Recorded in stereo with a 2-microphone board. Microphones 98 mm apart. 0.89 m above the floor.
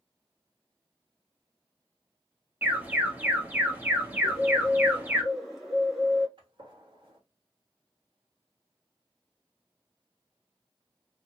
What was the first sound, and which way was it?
An alarm, 20° right (ahead or behind).